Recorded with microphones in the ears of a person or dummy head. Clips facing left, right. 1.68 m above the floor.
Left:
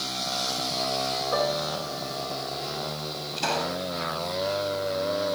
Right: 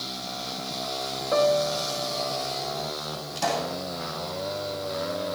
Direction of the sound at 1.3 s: 80° right.